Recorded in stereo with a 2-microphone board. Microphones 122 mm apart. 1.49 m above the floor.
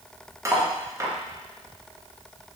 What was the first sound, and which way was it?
Cutlery clinking, 25° right (ahead or behind).